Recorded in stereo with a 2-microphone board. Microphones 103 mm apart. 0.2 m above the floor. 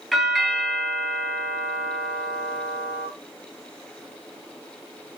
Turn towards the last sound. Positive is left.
turn(degrees=5)  # may be behind; listen again after turning